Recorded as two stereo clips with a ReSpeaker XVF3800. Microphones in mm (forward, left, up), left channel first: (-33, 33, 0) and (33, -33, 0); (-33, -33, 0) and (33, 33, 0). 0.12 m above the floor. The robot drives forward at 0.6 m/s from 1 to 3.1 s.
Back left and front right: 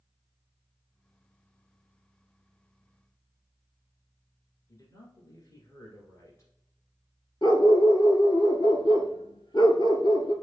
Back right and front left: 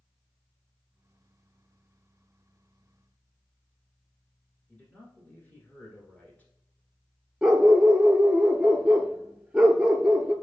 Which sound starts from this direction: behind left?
A dog barking, at 7.4 s.